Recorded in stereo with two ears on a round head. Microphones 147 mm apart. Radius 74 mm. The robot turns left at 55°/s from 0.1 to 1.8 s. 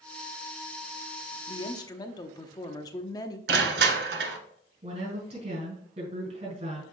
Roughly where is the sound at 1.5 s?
Left.